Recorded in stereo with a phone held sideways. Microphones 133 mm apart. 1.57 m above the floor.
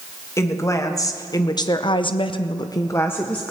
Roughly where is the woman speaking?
Left.